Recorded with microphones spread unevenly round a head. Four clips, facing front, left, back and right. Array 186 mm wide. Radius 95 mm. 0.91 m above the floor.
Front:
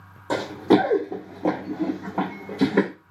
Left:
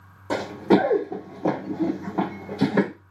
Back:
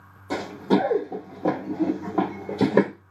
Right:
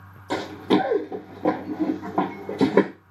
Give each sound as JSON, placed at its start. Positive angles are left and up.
{"t": 0.3, "sound": "running footsteps", "azimuth_deg": 25, "distance_m": 1.1}